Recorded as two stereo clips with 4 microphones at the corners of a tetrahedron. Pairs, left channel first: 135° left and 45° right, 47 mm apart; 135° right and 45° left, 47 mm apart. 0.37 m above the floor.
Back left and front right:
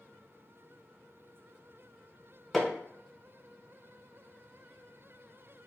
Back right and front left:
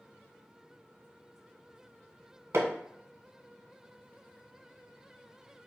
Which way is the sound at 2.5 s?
50° left.